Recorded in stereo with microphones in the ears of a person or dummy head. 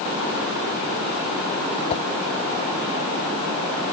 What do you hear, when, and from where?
1.9 s a whoosh: 40° left (ahead or behind)